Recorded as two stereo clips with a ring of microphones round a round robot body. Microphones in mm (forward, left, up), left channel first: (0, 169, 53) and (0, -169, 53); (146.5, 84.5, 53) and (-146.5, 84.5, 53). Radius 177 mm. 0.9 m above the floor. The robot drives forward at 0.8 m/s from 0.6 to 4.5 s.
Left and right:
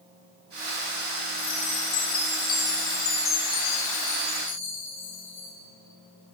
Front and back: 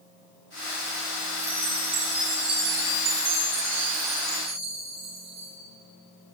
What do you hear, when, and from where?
1.4 s a chime: 135° left, 6.5 m; by 5.5 s 150° left, 8.5 m